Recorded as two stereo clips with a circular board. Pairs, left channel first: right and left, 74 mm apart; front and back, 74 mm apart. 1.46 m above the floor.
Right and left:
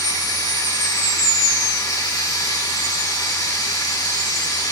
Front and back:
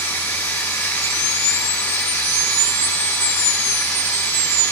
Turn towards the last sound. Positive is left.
turn(degrees=-55)